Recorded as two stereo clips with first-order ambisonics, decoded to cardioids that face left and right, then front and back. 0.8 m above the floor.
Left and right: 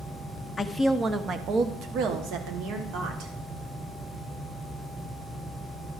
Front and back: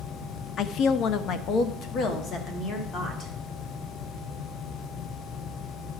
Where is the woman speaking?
20° left, 0.6 m; by 3.3 s 60° right, 1.9 m.